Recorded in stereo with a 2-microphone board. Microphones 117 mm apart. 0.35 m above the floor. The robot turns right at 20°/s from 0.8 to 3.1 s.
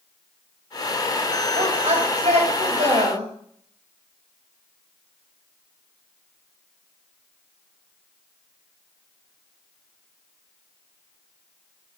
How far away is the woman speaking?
About 5 m.